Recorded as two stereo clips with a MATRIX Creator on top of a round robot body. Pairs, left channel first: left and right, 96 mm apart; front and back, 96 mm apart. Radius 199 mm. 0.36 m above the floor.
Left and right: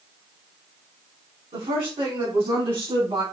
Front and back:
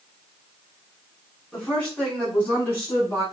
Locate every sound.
1.5 s a woman speaking: 75° right, 5 m; by 3.2 s 60° right, 6 m